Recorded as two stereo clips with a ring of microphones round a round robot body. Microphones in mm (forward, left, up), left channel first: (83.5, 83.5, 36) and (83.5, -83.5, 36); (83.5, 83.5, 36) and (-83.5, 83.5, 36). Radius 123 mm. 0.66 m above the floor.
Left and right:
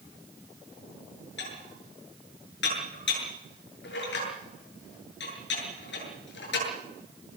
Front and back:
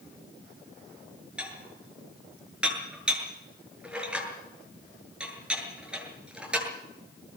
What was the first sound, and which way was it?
Dishes clattering, 95° left.